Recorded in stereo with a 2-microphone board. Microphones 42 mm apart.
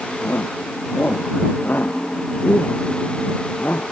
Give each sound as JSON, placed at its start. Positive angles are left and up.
{"t": 0.2, "sound": "a shout", "side_deg": 55}